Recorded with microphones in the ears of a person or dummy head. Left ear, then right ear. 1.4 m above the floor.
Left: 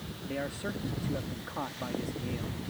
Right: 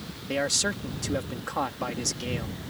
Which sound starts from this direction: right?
A man speaking, at 0.3 s.